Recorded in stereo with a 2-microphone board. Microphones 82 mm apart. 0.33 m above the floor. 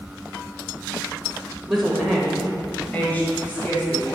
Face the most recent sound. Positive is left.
turn(degrees=30)  # may be behind; listen again after turning